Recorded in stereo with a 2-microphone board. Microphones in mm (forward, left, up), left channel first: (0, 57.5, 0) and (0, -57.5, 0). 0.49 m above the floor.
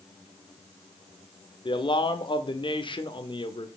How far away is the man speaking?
About 1.2 m.